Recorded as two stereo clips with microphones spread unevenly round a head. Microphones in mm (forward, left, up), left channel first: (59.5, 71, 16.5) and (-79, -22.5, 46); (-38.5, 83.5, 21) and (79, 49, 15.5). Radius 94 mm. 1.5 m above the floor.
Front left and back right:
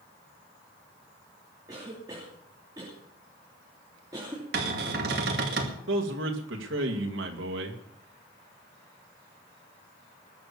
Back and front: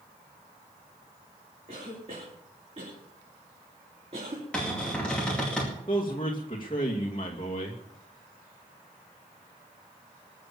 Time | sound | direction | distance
1.7 | a cough | 75° right | 3 m
4.5 | a cupboard door | 110° right | 2 m
5.9 | a man speaking | 135° right | 2.5 m